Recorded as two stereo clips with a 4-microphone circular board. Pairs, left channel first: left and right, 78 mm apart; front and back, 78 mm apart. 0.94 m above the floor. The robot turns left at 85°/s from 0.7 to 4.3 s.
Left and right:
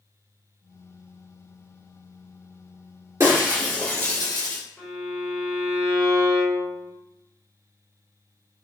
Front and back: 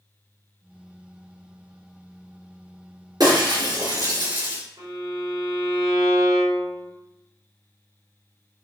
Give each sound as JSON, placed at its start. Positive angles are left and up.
{"t": 3.2, "sound": "breaking glass", "azimuth_deg": -140, "distance_m": 4.0}
{"t": 4.8, "sound": "a violin", "azimuth_deg": 165, "distance_m": 4.0}